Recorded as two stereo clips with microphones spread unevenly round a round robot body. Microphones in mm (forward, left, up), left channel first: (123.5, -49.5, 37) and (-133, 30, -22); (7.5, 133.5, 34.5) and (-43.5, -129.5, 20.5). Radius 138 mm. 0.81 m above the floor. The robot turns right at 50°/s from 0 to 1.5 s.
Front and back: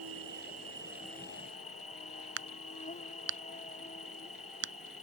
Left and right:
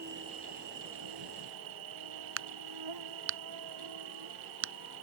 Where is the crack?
145° right.